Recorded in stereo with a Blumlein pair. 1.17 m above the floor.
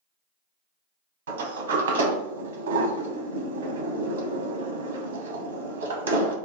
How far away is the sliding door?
About 0.7 m.